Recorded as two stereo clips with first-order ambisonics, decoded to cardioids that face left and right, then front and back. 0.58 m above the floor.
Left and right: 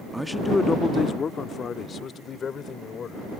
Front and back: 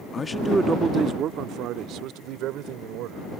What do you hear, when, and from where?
0.1 s a man speaking: 5° right; by 3.3 s 155° left